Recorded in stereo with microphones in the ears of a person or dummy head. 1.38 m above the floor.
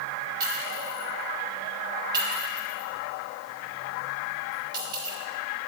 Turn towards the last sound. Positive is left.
turn(degrees=-30)  # may be behind; listen again after turning